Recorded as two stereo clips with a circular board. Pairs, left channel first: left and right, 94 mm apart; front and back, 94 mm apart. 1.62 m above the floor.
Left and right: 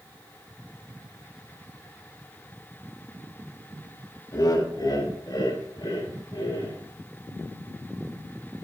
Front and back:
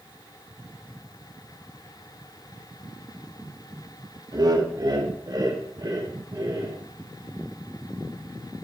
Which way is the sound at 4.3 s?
135° left.